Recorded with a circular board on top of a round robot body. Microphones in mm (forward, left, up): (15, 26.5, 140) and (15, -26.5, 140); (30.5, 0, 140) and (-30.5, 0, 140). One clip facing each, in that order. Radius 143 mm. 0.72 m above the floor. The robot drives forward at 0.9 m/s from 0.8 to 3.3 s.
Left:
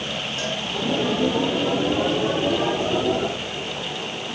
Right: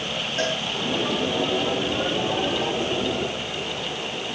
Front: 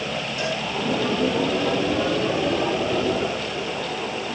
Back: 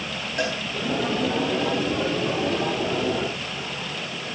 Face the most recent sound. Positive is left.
turn(degrees=-145)